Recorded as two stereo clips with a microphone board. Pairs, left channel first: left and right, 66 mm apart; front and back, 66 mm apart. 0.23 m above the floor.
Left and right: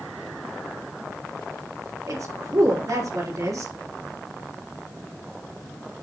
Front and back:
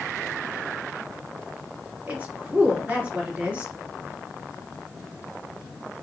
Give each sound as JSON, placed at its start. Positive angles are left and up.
{"t": 2.1, "sound": "a woman speaking", "azimuth_deg": -115, "distance_m": 3.0}